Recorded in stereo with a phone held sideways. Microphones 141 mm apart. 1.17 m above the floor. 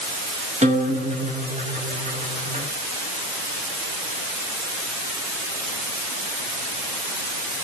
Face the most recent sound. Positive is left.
turn(degrees=-50)  # may be behind; listen again after turning